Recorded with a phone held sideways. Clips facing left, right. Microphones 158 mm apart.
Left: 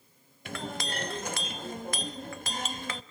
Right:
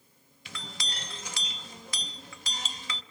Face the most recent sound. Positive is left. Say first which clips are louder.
# left 9 dB
turn(degrees=60)  # may be behind; listen again after turning